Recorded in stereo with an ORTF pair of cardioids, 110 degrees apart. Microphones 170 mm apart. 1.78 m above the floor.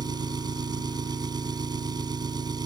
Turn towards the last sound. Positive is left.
turn(degrees=-25)